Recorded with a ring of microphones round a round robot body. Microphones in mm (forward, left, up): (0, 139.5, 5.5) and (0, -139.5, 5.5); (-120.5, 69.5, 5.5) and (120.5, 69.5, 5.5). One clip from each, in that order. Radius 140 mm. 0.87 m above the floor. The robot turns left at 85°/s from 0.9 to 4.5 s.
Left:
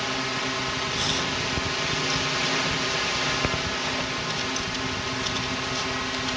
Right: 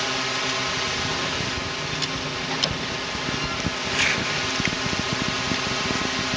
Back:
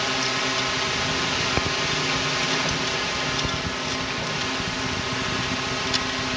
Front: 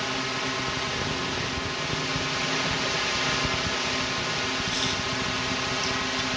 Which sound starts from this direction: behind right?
A drone, at 0.0 s.